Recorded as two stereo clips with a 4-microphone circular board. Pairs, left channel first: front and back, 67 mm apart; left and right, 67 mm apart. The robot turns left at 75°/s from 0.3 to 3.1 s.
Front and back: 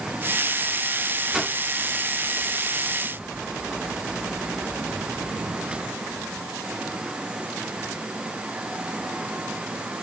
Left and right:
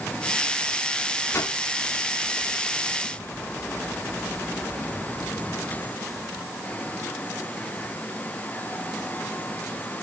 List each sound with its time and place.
1.3 s a whoosh: 100° left, 1.1 m; by 1.6 s 80° left, 1.1 m